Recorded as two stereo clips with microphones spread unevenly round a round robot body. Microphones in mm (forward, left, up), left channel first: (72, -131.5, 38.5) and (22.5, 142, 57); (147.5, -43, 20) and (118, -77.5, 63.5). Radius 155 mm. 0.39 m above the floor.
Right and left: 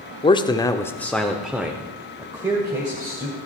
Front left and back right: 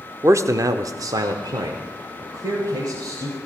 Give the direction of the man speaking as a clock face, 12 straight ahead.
2 o'clock.